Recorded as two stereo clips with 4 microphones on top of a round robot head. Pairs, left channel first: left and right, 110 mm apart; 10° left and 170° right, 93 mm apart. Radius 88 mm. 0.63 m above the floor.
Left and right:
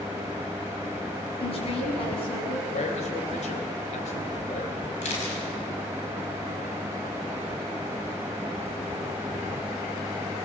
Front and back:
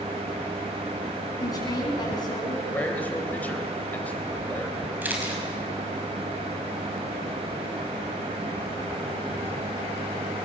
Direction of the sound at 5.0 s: 120° left.